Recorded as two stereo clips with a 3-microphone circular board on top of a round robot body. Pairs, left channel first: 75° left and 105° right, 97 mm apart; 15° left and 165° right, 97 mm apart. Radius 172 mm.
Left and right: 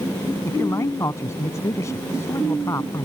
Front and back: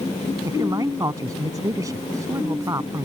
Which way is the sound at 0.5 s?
135° left.